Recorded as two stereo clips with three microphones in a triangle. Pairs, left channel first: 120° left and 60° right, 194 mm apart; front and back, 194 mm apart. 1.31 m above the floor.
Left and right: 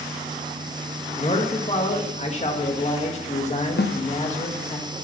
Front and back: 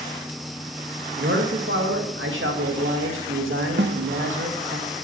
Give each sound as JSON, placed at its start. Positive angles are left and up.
{"t": 1.2, "sound": "a man speaking", "azimuth_deg": 175, "distance_m": 1.9}
{"t": 3.8, "sound": "a snare drum", "azimuth_deg": 150, "distance_m": 0.8}